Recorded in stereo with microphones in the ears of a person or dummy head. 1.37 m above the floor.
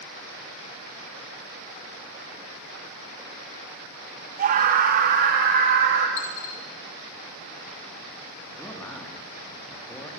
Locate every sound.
4.4 s a scream: 50° right (ahead or behind), 1.6 m; by 6.1 s 60° right (ahead or behind), 3 m
6.2 s a dropped coin: 75° left (ahead or behind), 3.5 m
8.6 s a man speaking: 5° left (ahead or behind), 2.5 m